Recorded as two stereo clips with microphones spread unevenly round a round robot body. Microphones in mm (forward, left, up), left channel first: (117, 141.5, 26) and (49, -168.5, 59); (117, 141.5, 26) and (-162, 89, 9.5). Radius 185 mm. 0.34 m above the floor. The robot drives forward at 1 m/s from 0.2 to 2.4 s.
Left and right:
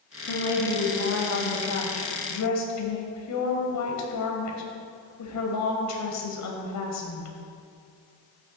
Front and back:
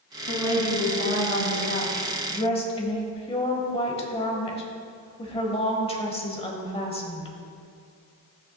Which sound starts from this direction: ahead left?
A woman speaking, at 0.3 s.